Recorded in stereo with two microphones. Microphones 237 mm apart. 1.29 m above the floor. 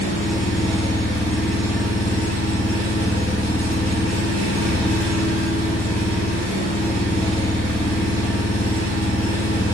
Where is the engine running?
80° right, 1.1 m.